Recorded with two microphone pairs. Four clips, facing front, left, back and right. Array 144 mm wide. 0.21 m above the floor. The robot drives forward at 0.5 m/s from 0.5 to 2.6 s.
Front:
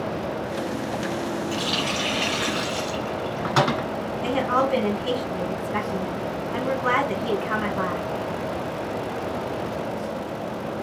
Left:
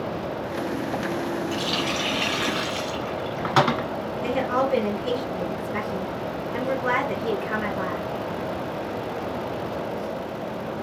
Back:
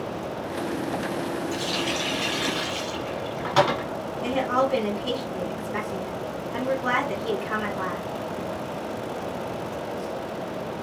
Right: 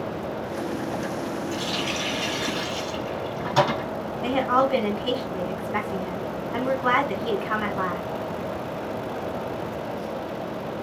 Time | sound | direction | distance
1.5 | a running tap | 45° left | 1.4 m
4.2 | a woman speaking | 75° right | 1.4 m